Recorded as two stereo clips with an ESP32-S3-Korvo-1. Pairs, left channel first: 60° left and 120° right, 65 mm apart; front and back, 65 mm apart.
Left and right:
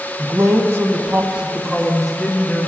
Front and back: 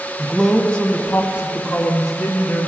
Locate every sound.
0.2 s a man speaking: 90° right, 1.0 m; by 2.7 s 20° right, 1.5 m